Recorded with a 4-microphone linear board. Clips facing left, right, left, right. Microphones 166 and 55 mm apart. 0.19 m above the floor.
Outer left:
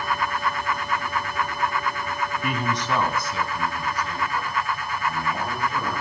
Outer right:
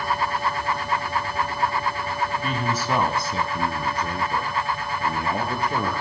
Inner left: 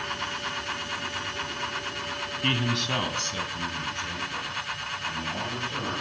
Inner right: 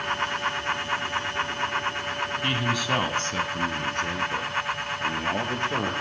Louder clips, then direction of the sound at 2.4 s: Outer right 1 dB, even; 15° left (ahead or behind).